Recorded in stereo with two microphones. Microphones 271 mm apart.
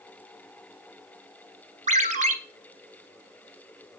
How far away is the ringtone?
About 1.1 m.